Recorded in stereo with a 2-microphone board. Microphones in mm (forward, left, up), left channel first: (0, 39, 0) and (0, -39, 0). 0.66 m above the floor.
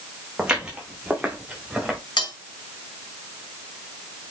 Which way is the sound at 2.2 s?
75° left (ahead or behind).